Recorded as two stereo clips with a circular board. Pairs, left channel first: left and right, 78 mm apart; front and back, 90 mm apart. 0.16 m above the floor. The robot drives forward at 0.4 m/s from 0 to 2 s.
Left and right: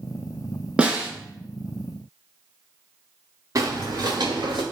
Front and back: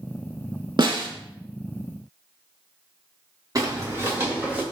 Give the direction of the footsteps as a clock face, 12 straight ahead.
4 o'clock.